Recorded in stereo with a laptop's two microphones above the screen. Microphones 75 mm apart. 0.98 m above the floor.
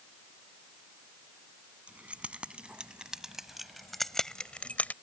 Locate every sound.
1.9 s keys jangling: 20° right (ahead or behind); by 5.0 s 25° left (ahead or behind)